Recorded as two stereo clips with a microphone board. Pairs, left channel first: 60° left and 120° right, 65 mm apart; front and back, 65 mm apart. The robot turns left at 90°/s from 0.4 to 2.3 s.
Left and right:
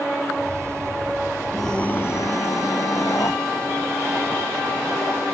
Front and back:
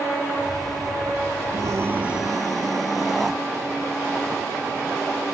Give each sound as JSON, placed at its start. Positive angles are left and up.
{"t": 1.5, "sound": "a scream", "azimuth_deg": 155}